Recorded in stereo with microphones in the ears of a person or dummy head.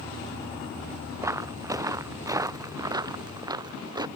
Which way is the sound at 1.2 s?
10° right (ahead or behind).